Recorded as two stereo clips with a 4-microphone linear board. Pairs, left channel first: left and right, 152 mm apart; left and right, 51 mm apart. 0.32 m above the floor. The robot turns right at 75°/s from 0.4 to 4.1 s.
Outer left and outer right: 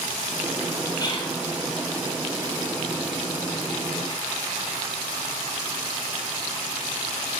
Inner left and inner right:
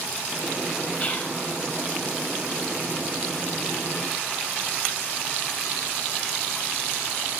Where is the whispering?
30° left (ahead or behind), 1.5 m; by 1.3 s 45° left (ahead or behind), 1.5 m.